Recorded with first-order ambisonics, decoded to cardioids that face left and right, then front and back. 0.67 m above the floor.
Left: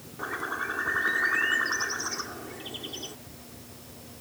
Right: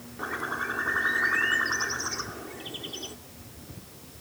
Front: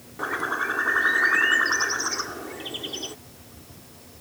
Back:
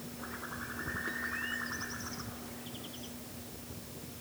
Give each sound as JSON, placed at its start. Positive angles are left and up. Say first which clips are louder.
{"t": 0.2, "sound": "a bird", "louder": "right 1 dB, front 18 dB", "azimuth_deg": -5}